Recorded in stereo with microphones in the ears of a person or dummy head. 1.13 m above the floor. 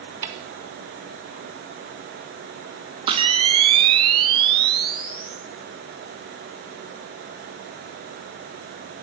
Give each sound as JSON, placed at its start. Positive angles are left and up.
{"t": 0.2, "sound": "a snare drum", "side_deg": -25, "distance_m": 0.9}
{"t": 3.1, "sound": "a camera shutter", "side_deg": -40, "distance_m": 1.1}